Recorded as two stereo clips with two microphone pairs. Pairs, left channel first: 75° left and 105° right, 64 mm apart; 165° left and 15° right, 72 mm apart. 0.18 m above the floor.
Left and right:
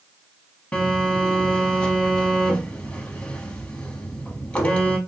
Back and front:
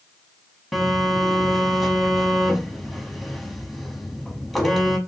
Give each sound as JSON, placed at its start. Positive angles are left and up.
{"t": 0.7, "sound": "a phone buzzing", "azimuth_deg": 70, "distance_m": 0.8}